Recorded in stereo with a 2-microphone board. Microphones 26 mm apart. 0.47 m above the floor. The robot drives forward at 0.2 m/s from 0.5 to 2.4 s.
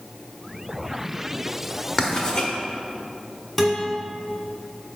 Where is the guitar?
10° left (ahead or behind), 1.4 m.